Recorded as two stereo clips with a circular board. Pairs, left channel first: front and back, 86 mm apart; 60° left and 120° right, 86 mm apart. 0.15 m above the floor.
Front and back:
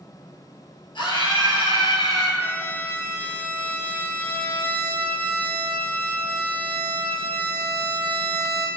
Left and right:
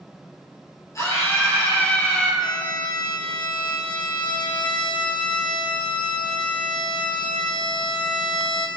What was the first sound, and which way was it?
A scream, 15° left.